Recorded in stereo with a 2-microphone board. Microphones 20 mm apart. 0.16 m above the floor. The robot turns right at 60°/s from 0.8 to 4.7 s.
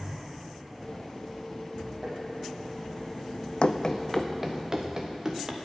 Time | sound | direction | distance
2.0 | tapping | 30° right (ahead or behind) | 3.5 m
3.6 | running footsteps | 50° left (ahead or behind) | 0.6 m